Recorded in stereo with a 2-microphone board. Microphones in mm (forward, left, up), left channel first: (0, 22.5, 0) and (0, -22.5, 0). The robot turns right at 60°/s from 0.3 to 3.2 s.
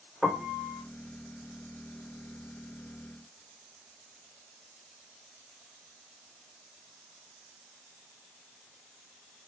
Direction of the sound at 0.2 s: 165° right.